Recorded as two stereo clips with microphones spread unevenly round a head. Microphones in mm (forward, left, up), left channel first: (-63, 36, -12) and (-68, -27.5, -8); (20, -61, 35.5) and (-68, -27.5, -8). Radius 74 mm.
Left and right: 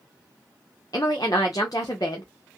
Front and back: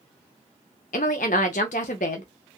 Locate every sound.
0.9 s a woman speaking: 20° left, 0.8 m